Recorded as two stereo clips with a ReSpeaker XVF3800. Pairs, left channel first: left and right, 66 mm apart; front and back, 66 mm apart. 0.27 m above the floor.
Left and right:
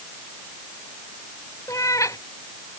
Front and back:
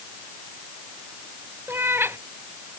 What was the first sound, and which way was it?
A cat meowing, 125° left.